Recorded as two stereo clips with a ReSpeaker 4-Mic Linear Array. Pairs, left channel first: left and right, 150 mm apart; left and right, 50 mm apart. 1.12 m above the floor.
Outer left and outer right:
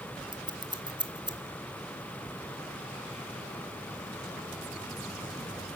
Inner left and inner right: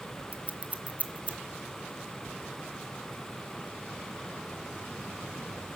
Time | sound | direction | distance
0.3 | scissors | 30° right (ahead or behind) | 1.1 m